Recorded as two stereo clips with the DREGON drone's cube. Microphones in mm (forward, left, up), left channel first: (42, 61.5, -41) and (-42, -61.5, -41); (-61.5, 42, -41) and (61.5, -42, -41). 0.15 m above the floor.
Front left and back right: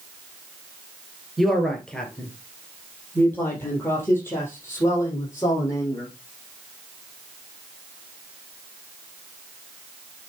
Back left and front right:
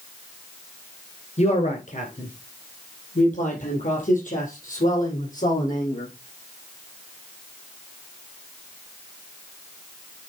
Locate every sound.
1.4 s a man speaking: 145° left, 1.8 m; by 6.1 s 125° left, 4.5 m